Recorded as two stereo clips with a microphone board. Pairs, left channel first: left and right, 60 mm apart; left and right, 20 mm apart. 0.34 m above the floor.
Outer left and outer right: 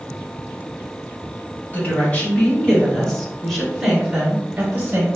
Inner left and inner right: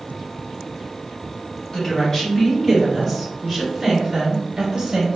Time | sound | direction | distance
1.7 | a woman speaking | 30° left (ahead or behind) | 1.7 m